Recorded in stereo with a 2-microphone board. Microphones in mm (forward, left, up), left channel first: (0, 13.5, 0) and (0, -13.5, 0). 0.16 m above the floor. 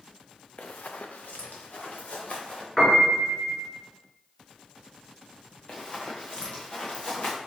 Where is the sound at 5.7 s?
35° left (ahead or behind), 1.2 m; by 7.4 s 45° left (ahead or behind), 2 m.